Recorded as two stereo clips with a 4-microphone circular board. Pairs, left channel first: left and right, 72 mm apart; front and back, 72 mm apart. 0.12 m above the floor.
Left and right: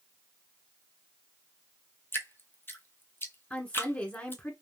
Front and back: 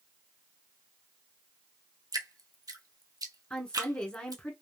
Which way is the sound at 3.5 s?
55° left.